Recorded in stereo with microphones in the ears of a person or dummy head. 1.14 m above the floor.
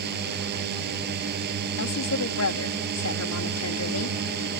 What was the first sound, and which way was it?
A drone, 60° right (ahead or behind).